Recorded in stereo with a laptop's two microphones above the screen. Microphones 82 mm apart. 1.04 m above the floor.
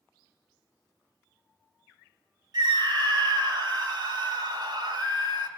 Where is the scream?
55° right (ahead or behind), 2 m.